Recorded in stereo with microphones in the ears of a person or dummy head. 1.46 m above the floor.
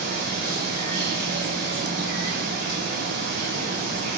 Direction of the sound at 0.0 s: 55° right (ahead or behind).